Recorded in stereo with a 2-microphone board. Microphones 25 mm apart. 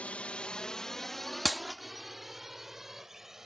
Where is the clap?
Centre (ahead or behind).